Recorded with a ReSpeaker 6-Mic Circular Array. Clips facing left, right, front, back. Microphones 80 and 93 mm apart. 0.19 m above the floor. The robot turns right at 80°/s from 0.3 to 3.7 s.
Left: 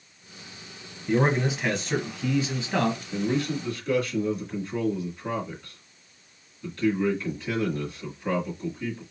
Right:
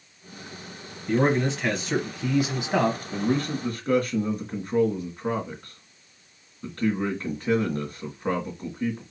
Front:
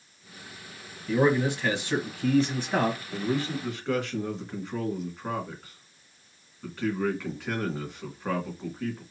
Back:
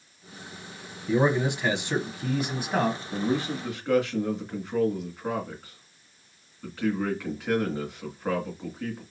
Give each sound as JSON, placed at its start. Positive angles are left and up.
{"t": 1.1, "sound": "a man speaking", "azimuth_deg": 130, "distance_m": 1.1}
{"t": 3.1, "sound": "a man speaking", "azimuth_deg": -140, "distance_m": 2.0}